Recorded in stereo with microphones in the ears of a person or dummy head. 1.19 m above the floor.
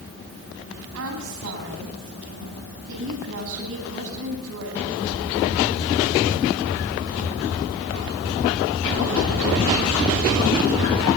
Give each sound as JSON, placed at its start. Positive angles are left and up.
{"t": 0.9, "sound": "a woman speaking", "side_deg": -80, "distance_m": 9.5}